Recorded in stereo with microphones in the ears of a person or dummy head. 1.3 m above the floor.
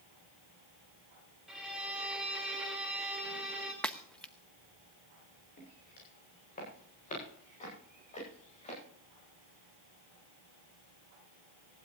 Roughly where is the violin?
Centre.